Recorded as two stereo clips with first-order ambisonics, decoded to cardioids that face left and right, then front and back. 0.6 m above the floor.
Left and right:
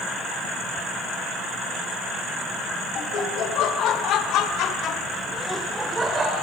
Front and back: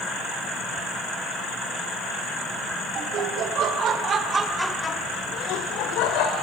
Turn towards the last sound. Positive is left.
turn(degrees=-15)